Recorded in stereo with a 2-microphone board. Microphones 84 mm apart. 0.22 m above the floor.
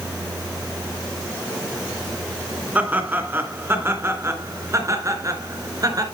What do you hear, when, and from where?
2.8 s laughter: 20° right (ahead or behind), 3 m; by 6.0 s 45° right (ahead or behind), 3.5 m